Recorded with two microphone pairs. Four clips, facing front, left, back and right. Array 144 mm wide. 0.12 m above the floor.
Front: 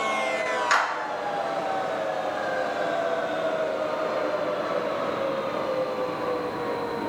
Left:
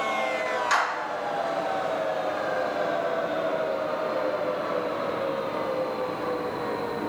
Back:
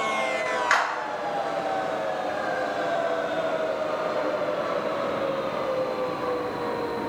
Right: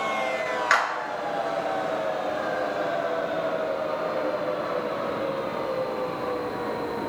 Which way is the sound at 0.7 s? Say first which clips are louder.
Right 2 dB, even; 110° right.